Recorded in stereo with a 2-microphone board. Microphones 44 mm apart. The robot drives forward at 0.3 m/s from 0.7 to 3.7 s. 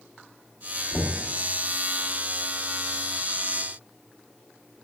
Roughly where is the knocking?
Left.